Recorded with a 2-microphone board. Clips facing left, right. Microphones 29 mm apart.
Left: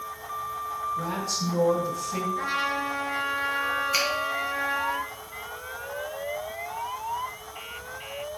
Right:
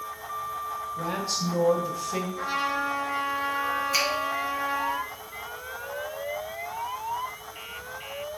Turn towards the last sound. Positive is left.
turn(degrees=10)  # may be behind; listen again after turning